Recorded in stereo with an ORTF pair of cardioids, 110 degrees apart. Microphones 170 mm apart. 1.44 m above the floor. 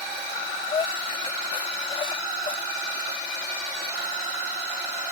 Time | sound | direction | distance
0.3 | breathing | 30° left | ?